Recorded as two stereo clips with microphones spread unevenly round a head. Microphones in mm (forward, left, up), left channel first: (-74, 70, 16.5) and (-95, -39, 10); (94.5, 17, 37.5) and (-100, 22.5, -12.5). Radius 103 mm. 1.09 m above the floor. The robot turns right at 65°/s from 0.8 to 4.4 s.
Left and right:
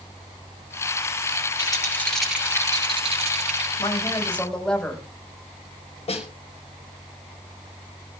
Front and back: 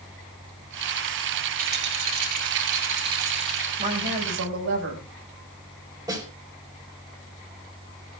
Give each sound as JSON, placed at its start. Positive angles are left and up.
{"t": 1.6, "sound": "a rattle", "azimuth_deg": 130, "distance_m": 5.0}
{"t": 3.8, "sound": "a woman speaking", "azimuth_deg": 125, "distance_m": 5.0}
{"t": 6.1, "sound": "a snare drum", "azimuth_deg": 105, "distance_m": 4.5}